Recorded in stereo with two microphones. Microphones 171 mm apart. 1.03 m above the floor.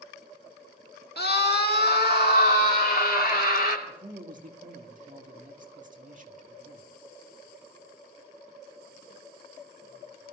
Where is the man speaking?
50° right (ahead or behind), 1.8 m.